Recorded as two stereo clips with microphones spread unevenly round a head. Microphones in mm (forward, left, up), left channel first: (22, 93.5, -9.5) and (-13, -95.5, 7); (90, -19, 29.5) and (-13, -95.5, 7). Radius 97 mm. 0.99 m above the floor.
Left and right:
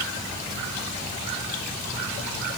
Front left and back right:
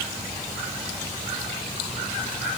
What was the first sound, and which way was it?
Only background noise.